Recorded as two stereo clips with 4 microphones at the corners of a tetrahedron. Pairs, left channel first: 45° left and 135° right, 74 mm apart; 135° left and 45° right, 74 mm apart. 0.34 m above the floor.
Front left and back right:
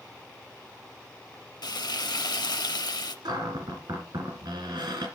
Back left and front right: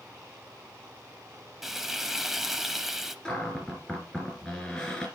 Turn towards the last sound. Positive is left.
turn(degrees=-145)